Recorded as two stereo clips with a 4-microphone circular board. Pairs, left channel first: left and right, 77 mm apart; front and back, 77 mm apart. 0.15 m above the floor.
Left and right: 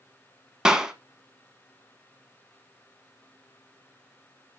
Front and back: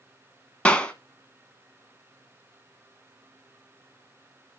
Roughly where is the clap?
Ahead right.